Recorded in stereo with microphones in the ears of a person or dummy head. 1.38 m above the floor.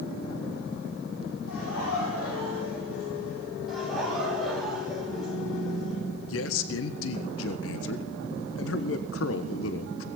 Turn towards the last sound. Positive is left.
turn(degrees=65)  # may be behind; listen again after turning